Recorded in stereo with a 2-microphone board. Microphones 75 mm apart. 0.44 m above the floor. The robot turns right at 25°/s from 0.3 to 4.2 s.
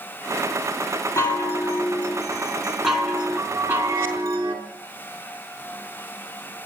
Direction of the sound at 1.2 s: 140° left.